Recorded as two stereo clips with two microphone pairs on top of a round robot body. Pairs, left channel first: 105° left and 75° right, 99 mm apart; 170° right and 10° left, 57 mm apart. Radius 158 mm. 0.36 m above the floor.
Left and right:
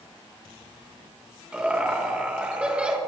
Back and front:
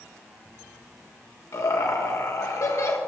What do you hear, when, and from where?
1.5 s laughter: 155° right, 2.0 m